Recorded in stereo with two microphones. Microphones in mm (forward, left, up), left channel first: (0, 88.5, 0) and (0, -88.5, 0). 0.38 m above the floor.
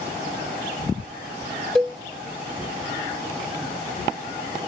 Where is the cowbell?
5° left (ahead or behind), 1.6 m.